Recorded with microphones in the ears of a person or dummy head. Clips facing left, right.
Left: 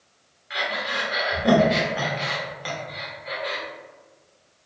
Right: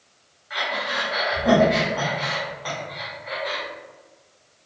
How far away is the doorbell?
I don't hear a doorbell.